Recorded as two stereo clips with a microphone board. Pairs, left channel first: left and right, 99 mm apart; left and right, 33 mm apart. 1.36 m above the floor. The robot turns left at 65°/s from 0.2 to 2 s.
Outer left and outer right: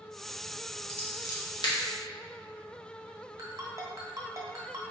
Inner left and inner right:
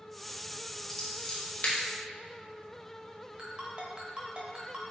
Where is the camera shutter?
I don't hear a camera shutter.